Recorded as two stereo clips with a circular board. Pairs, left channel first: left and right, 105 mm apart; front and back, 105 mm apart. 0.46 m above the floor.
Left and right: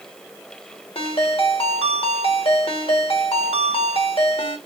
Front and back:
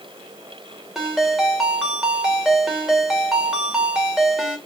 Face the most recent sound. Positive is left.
turn(degrees=95)